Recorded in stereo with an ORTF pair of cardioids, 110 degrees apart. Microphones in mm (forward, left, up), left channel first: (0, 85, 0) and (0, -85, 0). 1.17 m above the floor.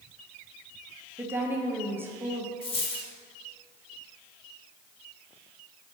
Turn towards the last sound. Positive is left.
turn(degrees=35)